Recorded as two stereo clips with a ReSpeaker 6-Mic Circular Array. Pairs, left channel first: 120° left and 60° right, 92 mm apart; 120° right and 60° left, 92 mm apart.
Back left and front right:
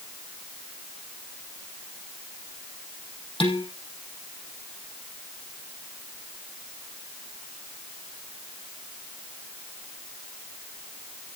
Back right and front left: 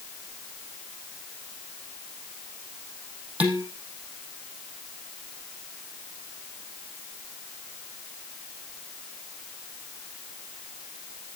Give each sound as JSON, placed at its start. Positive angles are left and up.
{"t": 3.4, "sound": "dishes clattering", "azimuth_deg": 135, "distance_m": 4.5}